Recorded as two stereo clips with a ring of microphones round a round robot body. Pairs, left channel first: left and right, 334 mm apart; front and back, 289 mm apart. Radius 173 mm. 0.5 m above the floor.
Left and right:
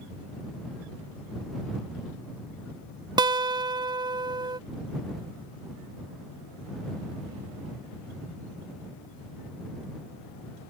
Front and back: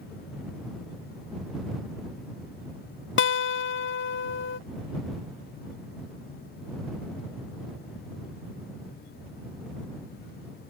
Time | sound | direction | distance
3.2 | a guitar | 20° right | ?